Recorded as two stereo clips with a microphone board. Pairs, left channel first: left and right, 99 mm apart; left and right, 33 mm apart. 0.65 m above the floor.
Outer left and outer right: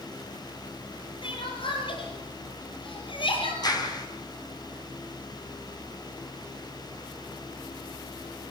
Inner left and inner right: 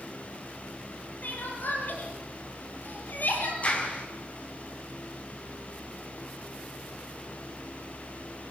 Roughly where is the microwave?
I don't hear a microwave.